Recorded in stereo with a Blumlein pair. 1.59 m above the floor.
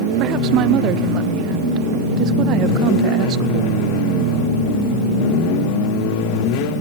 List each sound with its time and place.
0.2 s a woman speaking: 35° right, 0.7 m